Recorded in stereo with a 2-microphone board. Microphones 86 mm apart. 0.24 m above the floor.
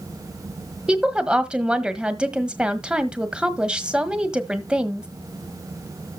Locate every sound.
0.9 s a woman speaking: 10° right (ahead or behind), 1.4 m